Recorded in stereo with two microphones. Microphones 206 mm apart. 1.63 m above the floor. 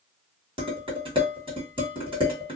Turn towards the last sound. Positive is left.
turn(degrees=-25)  # may be behind; listen again after turning